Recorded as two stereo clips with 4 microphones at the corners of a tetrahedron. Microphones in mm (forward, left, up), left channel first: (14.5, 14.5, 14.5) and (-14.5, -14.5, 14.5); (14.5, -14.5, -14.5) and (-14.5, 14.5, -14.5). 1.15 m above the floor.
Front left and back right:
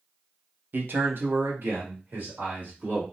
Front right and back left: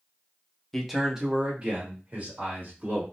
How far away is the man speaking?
About 0.5 m.